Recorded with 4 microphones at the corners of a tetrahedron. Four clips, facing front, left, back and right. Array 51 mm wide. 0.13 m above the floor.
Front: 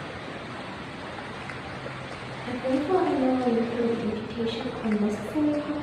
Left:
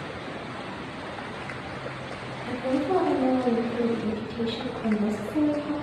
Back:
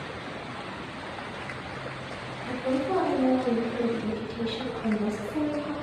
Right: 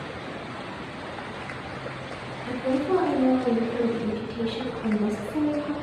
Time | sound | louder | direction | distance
2.5 | a woman speaking | right 1 dB, front 3 dB | 55° right | 1.8 m